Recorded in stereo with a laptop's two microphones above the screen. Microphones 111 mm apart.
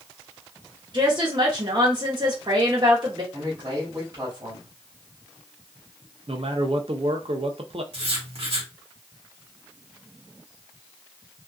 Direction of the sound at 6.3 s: 55° right (ahead or behind).